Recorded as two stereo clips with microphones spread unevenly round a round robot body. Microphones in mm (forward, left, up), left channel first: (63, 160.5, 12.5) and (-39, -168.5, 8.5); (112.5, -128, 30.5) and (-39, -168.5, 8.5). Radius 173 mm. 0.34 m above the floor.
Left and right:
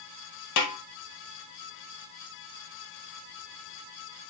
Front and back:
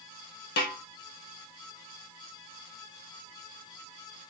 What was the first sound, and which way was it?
A snare drum, 35° left.